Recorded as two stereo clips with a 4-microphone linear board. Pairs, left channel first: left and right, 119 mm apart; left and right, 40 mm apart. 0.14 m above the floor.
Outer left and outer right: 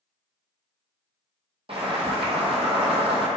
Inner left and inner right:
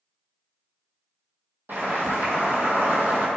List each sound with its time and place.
1.7 s boiling: 55° right (ahead or behind), 0.8 m